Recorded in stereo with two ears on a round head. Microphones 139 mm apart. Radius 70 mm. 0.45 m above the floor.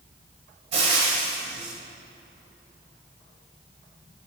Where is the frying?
40° right (ahead or behind), 1.2 m.